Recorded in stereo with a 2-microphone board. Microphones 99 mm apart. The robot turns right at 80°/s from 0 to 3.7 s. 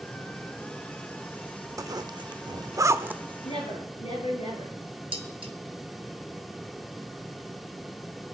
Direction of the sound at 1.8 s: 35° right (ahead or behind).